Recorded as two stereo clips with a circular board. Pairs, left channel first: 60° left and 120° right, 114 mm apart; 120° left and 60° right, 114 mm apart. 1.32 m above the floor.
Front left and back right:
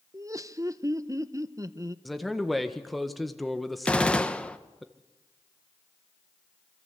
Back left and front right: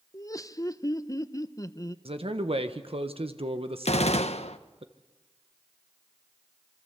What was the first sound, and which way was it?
Laughter, straight behind.